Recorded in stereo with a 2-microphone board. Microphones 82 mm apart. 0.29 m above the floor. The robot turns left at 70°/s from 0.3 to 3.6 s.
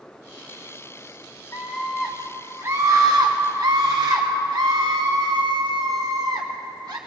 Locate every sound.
1.5 s a scream: 40° left, 2 m; by 7.0 s 105° right, 2 m